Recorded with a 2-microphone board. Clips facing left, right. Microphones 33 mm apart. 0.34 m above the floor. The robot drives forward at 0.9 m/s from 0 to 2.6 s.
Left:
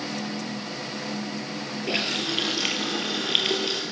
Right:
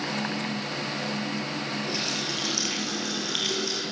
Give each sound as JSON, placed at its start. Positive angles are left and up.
{"t": 1.9, "sound": "a running tap", "side_deg": 45, "distance_m": 5.5}